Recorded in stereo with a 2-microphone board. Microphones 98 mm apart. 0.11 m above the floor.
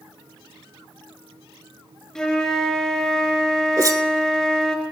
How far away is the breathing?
No breathing in this recording.